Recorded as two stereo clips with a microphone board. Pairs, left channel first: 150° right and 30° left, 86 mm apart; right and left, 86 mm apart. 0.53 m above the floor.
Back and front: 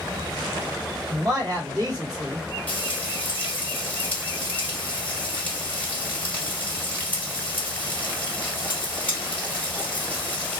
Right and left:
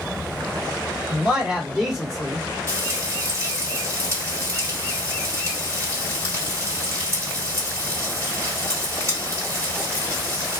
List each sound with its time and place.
1.1 s a man speaking: 20° left, 2 m; by 2.4 s straight ahead, 1.9 m
2.7 s frying: 140° left, 1.9 m